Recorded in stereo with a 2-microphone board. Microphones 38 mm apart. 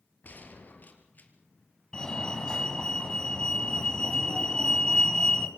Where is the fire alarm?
20° left (ahead or behind), 2.5 m.